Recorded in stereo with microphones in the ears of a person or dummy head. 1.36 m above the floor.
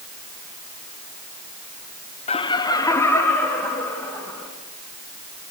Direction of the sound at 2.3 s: 30° left (ahead or behind).